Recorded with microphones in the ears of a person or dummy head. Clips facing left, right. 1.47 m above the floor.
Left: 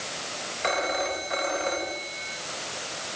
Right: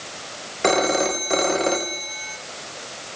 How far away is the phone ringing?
About 1.2 m.